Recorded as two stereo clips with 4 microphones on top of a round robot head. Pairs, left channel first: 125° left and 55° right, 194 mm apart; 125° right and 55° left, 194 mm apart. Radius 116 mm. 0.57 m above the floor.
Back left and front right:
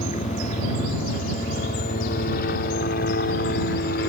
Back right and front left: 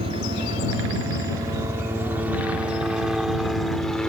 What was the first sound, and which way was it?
A helicopter, 100° left.